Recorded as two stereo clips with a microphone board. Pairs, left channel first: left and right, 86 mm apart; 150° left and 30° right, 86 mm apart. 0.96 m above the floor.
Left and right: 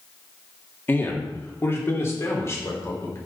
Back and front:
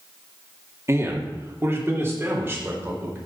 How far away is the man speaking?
About 2 m.